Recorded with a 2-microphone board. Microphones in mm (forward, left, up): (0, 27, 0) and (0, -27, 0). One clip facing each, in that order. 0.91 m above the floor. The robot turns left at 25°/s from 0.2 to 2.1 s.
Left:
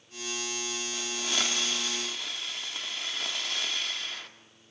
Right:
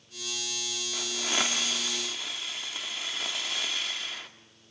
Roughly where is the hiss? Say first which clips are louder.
Right 3 dB; right.